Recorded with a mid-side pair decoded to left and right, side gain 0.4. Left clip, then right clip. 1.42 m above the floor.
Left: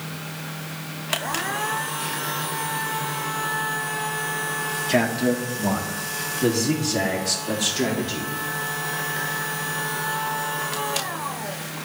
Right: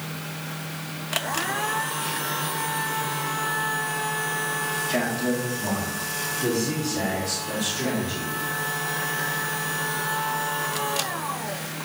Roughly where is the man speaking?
Ahead left.